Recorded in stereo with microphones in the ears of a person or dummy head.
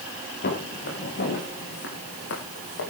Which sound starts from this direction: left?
Footsteps, at 0.4 s.